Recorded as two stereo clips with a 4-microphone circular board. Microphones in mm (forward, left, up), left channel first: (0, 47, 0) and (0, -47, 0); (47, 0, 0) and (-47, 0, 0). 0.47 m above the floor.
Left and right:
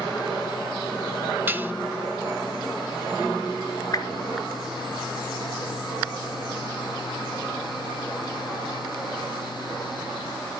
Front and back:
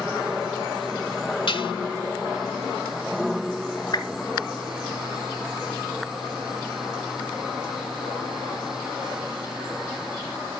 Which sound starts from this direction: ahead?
Dishes clattering, at 1.5 s.